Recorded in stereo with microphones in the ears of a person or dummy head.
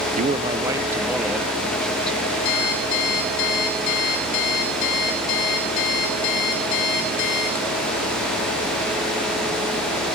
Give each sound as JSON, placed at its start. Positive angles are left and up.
{"t": 0.2, "sound": "a man speaking", "side_deg": -45, "distance_m": 0.7}
{"t": 2.5, "sound": "an alarm clock", "side_deg": 80, "distance_m": 4.0}